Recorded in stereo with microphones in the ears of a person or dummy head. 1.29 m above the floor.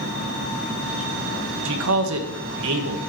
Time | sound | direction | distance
1.6 | a man speaking | 70° right (ahead or behind) | 1.0 m